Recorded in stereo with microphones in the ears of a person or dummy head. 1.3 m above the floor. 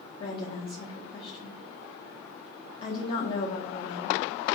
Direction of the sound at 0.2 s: 30° left (ahead or behind).